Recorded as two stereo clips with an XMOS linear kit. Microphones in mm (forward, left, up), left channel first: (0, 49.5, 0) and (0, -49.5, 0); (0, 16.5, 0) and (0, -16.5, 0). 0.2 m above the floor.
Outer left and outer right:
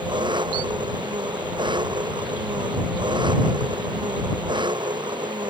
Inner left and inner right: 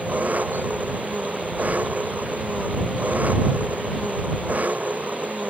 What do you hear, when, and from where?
0.0 s an engine running: 55° right (ahead or behind)